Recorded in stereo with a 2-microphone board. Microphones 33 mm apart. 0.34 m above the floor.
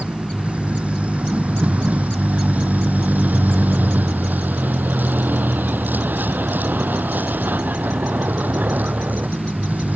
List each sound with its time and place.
0.0 s a vehicle: 40° right (ahead or behind); by 10.0 s 60° right (ahead or behind)